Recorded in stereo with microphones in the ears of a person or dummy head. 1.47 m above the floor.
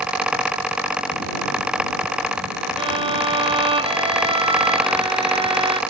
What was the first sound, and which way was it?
A violin, 25° right (ahead or behind).